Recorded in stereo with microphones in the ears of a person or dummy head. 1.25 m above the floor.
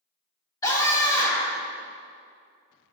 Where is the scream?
25° left (ahead or behind), 2.0 m.